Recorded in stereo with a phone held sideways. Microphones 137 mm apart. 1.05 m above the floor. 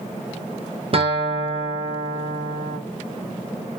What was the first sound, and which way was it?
A guitar, 40° right (ahead or behind).